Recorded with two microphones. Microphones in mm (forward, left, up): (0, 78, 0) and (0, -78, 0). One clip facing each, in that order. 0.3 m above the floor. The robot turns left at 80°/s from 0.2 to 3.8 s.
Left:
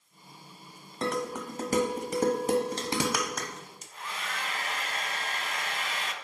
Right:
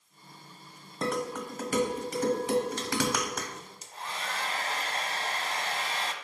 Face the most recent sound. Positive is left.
turn(degrees=-35)  # may be behind; listen again after turning